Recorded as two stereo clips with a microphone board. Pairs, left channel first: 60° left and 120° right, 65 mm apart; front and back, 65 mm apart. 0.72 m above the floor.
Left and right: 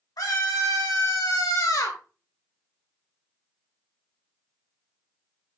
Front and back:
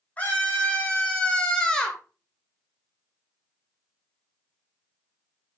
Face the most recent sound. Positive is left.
turn(degrees=80)